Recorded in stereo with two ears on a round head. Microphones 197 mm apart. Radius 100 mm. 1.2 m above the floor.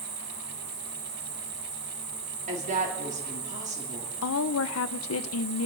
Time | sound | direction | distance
0.0 | an insect | 70° right (ahead or behind) | 3 m
2.5 | a woman speaking | 35° right (ahead or behind) | 3.5 m
4.2 | a woman speaking | 65° left (ahead or behind) | 0.7 m